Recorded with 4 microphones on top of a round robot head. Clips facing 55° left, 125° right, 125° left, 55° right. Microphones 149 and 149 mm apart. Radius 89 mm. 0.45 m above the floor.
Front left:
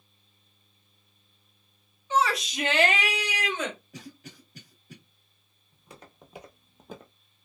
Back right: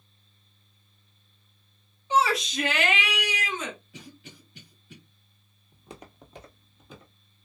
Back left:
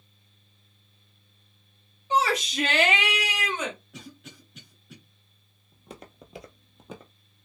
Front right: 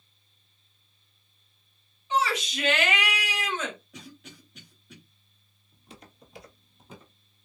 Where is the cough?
40° left, 1.5 m.